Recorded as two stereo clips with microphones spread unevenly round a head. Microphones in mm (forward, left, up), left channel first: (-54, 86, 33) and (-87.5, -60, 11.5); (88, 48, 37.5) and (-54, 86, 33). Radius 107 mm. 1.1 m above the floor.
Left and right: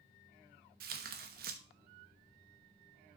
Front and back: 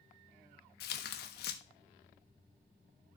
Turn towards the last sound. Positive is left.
turn(degrees=-55)